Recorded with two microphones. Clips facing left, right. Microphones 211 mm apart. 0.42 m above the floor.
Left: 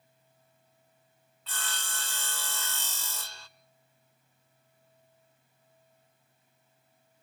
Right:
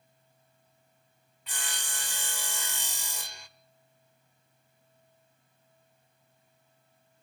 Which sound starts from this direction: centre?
Sawing, at 1.5 s.